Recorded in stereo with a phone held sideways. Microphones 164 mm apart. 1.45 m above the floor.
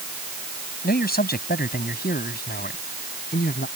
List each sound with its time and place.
0.8 s a man speaking: 65° left (ahead or behind); by 3.7 s 70° left (ahead or behind)